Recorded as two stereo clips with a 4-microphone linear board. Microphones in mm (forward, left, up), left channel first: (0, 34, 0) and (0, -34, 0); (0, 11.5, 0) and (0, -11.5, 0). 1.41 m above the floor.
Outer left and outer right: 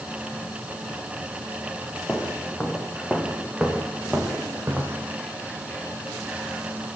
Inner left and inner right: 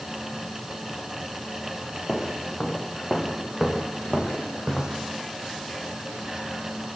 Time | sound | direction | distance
2.1 | footsteps | 5° left (ahead or behind) | 5 m